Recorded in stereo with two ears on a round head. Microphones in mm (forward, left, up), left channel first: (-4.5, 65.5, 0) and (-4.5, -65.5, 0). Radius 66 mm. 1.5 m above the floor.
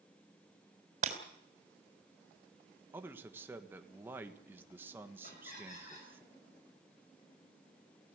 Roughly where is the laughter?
Left.